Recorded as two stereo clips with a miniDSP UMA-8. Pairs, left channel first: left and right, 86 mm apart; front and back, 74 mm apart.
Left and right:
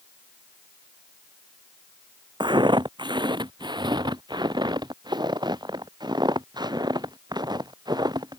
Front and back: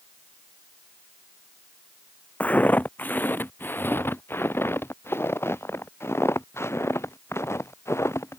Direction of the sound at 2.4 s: 70° right.